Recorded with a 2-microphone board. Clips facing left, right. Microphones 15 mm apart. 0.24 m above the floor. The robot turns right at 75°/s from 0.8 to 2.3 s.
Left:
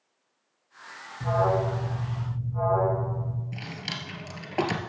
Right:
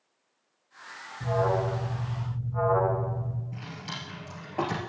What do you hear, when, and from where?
1.2 s an alarm: 130° left, 1.8 m; by 3.4 s 150° right, 1.8 m
3.5 s a drawer: 45° left (ahead or behind), 1.2 m